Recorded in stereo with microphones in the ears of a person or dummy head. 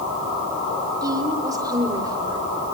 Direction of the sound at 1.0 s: 20° right (ahead or behind).